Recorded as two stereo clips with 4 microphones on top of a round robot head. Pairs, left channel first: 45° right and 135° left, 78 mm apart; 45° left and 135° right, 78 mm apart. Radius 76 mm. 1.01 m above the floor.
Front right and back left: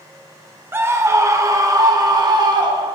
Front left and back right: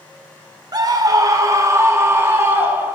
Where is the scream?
165° right, 1.5 m; by 3.0 s 160° left, 2 m.